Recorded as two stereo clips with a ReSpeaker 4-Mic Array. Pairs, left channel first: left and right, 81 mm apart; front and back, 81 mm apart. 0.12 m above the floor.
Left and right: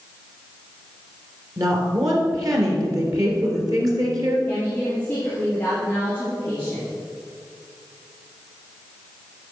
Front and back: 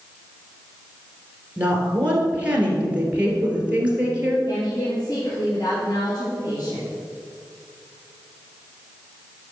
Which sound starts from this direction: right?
A woman speaking, at 1.6 s.